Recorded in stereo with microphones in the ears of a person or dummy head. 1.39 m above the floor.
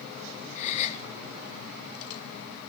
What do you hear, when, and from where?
0.6 s a gasp: 40° left (ahead or behind), 0.8 m